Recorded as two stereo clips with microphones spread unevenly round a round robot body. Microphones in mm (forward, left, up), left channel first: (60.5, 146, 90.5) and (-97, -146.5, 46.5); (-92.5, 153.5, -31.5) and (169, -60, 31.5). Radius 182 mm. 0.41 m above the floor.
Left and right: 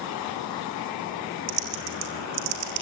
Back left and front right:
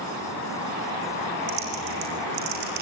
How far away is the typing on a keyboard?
About 4 m.